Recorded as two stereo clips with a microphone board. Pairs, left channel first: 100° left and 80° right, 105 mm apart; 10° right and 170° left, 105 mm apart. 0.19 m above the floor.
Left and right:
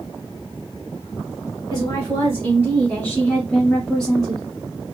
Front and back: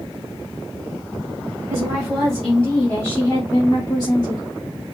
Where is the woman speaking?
100° left, 1.4 m; by 4.5 s 5° left, 1.8 m.